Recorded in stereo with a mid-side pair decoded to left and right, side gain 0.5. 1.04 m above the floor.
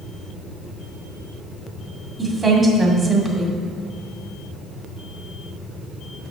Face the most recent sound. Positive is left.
turn(degrees=-30)